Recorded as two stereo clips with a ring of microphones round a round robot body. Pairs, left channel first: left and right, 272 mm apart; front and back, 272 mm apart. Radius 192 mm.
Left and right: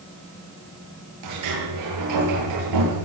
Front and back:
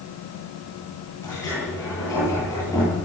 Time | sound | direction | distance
1.2 | a sliding door | 80° right | 9 m